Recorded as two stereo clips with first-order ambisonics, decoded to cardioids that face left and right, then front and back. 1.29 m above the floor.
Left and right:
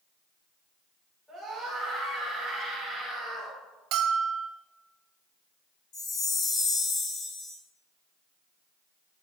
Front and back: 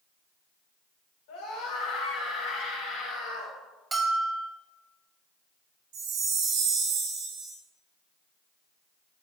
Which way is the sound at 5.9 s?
145° left.